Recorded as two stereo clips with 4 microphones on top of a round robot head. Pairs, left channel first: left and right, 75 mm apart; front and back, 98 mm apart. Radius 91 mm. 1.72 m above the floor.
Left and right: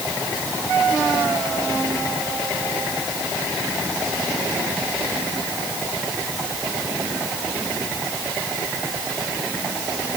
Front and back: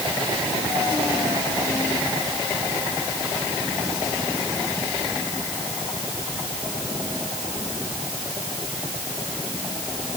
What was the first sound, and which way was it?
Only background noise.